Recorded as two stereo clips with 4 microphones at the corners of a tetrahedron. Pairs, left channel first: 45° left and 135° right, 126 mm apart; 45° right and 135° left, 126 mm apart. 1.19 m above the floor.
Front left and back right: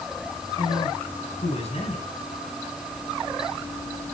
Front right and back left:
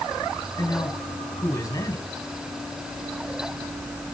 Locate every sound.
0.6 s a man speaking: 15° left, 6 m